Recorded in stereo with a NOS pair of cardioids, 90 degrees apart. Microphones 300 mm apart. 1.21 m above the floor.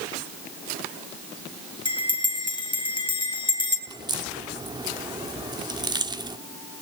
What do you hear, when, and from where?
1.9 s a bell: 15° left, 4.5 m
3.9 s a crack: 15° right, 1.6 m